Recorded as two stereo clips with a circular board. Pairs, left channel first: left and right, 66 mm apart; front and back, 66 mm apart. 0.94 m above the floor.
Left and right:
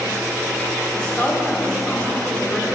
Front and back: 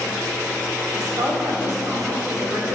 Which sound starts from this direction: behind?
A woman speaking, at 0.9 s.